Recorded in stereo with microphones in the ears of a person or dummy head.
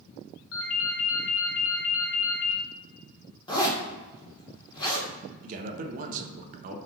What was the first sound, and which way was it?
A ringtone, 80° left.